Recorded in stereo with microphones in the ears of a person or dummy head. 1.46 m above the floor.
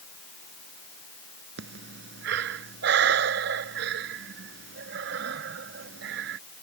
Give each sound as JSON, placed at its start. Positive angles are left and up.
{"t": 1.6, "sound": "breathing", "side_deg": -70}